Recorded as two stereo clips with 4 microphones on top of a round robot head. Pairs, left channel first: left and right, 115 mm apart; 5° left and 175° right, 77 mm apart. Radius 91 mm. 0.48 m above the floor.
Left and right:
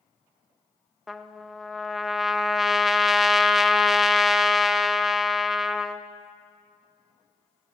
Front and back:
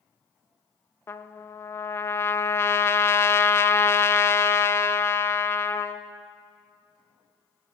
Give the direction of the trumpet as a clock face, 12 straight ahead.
12 o'clock.